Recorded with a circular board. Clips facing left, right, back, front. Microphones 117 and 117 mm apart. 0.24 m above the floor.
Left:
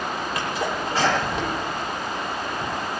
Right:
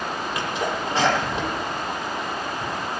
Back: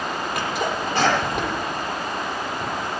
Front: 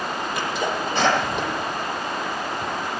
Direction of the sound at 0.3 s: 160° right.